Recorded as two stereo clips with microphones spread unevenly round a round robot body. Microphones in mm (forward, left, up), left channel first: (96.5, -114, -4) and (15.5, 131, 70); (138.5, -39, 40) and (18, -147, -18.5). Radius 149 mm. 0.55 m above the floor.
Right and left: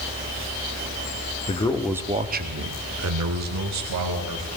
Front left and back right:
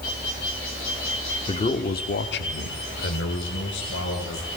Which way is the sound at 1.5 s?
25° right.